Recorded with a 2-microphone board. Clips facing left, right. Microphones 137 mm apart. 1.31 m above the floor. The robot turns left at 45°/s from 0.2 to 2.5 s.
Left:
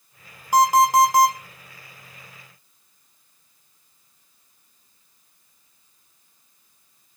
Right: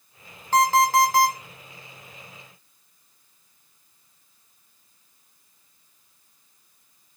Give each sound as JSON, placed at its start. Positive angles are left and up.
{"t": 0.5, "sound": "an alarm clock", "side_deg": 10, "distance_m": 0.7}